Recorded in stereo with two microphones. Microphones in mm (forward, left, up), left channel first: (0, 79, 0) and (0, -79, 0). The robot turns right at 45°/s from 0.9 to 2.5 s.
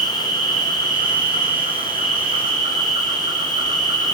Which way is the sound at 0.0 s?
105° right.